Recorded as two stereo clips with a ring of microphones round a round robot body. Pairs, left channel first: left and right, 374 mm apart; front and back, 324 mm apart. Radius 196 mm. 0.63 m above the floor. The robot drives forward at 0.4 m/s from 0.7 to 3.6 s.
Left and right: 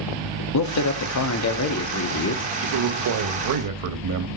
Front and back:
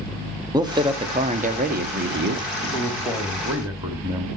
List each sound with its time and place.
0.5 s a man speaking: 105° left, 1.5 m; by 2.4 s 135° left, 1.8 m
2.6 s a man speaking: 75° right, 1.3 m; by 4.3 s 100° right, 1.3 m